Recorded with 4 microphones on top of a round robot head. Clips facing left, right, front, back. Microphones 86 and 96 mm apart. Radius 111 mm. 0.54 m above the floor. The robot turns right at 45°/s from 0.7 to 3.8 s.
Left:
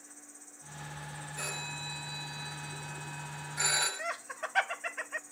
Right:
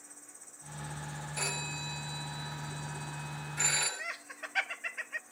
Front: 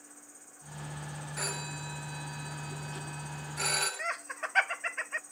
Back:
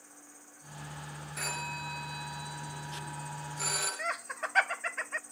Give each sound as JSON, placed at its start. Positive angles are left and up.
{"t": 0.0, "sound": "an insect", "azimuth_deg": -50, "distance_m": 6.0}
{"t": 1.4, "sound": "a phone ringing", "azimuth_deg": -85, "distance_m": 8.5}
{"t": 4.0, "sound": "laughter", "azimuth_deg": 100, "distance_m": 0.7}